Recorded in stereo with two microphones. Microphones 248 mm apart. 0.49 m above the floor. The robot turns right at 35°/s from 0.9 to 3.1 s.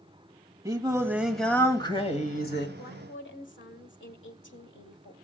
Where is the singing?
15° right, 1.3 m; by 2.7 s 45° left, 1.3 m.